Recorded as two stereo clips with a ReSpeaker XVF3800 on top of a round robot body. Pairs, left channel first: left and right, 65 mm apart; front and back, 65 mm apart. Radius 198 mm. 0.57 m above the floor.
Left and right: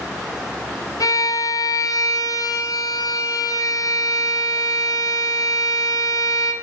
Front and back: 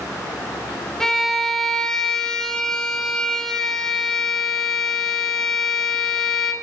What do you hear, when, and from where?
1.0 s a violin: 80° left, 1.8 m